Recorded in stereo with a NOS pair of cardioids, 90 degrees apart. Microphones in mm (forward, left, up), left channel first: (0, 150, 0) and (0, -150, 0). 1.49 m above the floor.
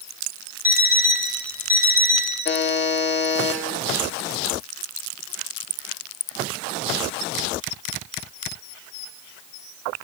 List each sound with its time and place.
0.6 s an alarm clock: 5° right, 3.5 m
2.5 s a buzzer: 35° left, 1.6 m